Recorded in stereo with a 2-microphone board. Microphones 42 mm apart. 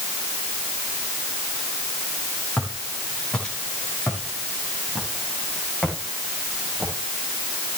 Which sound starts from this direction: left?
Footsteps, at 2.6 s.